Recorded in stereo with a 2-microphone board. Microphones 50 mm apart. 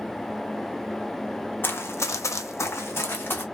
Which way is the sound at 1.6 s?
45° left (ahead or behind).